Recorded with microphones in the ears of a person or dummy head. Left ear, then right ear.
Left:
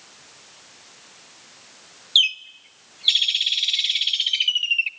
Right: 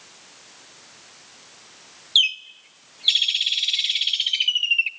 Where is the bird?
Centre (ahead or behind), 0.6 m.